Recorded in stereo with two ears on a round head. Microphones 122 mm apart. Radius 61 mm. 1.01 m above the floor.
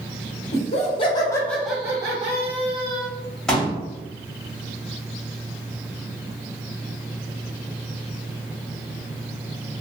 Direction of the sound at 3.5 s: 5° left (ahead or behind).